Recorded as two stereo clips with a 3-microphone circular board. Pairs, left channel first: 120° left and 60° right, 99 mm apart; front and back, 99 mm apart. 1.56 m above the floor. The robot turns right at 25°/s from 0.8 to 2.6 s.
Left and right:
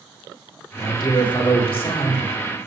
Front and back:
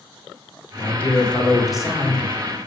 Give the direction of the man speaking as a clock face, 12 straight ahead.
10 o'clock.